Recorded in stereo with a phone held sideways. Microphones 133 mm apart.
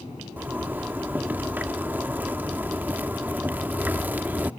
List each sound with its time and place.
0.4 s a zipper: 15° right (ahead or behind)